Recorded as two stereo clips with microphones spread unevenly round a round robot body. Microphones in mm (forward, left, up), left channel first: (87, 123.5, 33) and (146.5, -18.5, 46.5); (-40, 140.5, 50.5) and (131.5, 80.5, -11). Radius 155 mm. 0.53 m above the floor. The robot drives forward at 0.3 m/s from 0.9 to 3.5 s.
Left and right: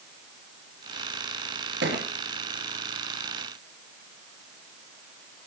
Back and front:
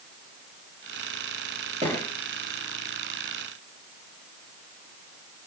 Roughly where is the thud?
Right.